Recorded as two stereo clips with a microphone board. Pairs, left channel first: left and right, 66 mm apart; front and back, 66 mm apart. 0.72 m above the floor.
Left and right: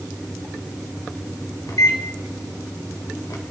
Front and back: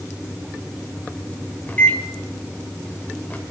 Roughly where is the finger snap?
I don't hear a finger snap.